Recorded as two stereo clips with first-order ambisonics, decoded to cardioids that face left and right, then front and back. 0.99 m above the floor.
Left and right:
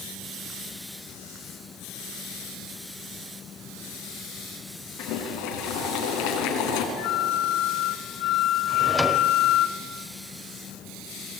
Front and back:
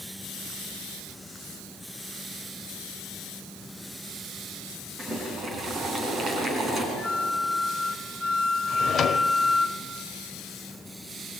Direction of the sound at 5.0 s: 110° left.